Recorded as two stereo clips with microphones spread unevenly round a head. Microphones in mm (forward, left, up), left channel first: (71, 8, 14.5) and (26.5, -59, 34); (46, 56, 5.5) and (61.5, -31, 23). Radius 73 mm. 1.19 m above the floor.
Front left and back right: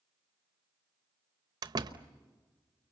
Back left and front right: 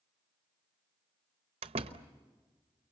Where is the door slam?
95° right, 0.9 m.